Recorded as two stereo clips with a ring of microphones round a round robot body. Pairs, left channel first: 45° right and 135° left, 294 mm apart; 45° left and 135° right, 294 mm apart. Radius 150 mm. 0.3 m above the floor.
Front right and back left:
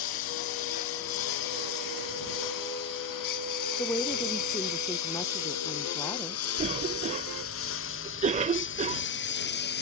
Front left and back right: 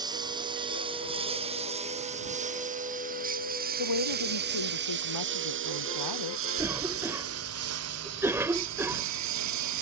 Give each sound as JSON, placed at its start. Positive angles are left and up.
{"t": 0.0, "sound": "a lawn mower", "azimuth_deg": -60}
{"t": 3.8, "sound": "a woman speaking", "azimuth_deg": 35}
{"t": 6.6, "sound": "a cough", "azimuth_deg": 155}